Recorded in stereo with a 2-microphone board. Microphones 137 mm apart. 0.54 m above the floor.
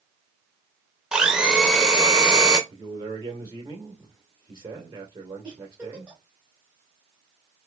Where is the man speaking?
35° right (ahead or behind), 1.8 m.